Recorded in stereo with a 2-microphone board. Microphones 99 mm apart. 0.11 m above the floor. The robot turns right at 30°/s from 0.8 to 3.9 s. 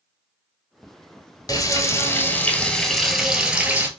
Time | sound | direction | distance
1.5 | frying | 130° left | 0.9 m